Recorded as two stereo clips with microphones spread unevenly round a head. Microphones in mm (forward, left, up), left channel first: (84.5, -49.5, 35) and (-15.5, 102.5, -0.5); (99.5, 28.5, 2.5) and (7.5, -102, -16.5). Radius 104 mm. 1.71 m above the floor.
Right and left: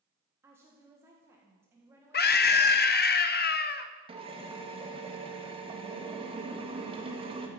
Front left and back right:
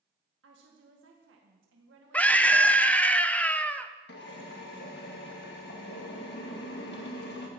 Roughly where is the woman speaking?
Behind right.